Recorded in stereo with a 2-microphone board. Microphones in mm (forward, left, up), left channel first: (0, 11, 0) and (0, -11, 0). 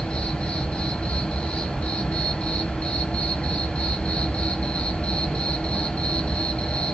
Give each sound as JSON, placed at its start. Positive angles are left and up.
{"t": 0.0, "sound": "an insect", "side_deg": 80, "distance_m": 0.8}